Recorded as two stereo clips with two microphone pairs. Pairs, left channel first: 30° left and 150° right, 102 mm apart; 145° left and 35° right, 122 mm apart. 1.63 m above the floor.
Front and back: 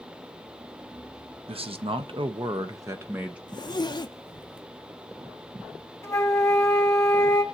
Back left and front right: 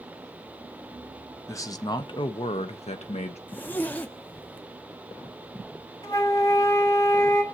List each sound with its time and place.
1.5 s a man speaking: 150° right, 0.9 m; by 3.4 s 130° left, 0.8 m
3.5 s a zipper: 70° left, 0.6 m
6.0 s a flute: 90° left, 2 m